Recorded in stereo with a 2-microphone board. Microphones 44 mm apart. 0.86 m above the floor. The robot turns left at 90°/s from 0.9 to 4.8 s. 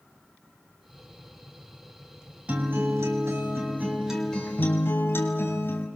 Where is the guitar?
25° right, 4.5 m; by 5.9 s 125° left, 4.5 m.